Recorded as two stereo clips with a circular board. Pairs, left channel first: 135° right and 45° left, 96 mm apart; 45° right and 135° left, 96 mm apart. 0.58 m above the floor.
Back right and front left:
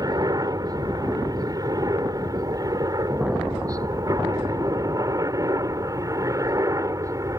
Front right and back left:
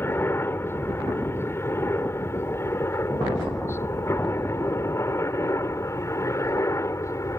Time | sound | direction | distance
0.0 | a helicopter | 10° left | ?